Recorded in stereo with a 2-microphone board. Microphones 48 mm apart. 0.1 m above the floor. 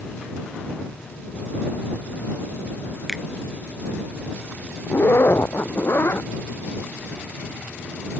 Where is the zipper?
55° left (ahead or behind).